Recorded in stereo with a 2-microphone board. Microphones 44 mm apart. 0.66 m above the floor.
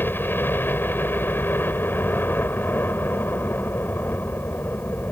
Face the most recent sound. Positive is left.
turn(degrees=50)  # may be behind; listen again after turning